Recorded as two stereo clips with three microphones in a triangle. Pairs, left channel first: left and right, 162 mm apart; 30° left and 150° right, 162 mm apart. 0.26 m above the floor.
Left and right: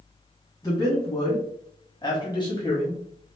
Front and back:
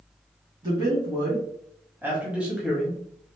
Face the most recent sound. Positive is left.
turn(degrees=115)